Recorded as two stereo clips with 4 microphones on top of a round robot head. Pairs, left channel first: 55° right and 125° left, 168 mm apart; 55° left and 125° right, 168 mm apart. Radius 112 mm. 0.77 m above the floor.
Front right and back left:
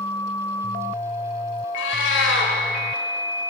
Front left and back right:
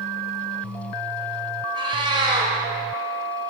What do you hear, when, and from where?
1.8 s a cat meowing: 60° right, 1.7 m